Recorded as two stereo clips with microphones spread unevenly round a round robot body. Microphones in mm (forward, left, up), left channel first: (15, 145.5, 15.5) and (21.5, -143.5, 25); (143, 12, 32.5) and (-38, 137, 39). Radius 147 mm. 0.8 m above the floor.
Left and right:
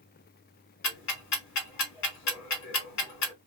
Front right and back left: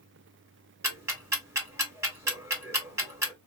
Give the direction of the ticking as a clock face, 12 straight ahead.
10 o'clock.